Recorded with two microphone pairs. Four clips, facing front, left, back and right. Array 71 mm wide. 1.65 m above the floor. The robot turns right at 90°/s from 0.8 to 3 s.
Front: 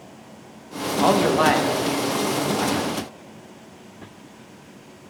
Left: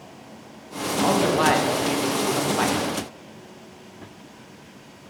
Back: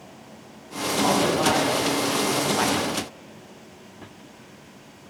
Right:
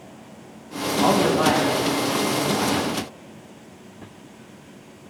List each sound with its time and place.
1.0 s a man speaking: 15° right, 1.9 m; by 2.8 s 145° left, 1.9 m